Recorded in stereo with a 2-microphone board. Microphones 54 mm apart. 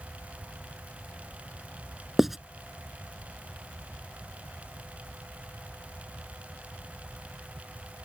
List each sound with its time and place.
2.2 s writing: 5° right (ahead or behind)